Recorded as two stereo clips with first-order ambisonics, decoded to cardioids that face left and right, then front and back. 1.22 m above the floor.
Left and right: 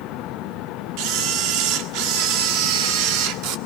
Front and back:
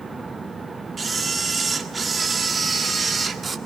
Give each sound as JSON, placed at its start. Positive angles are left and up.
{"t": 1.0, "sound": "a camera shutter", "azimuth_deg": -105, "distance_m": 1.6}